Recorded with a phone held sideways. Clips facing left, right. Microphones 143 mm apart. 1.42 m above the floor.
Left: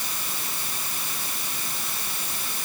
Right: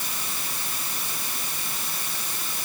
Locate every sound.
Only background noise.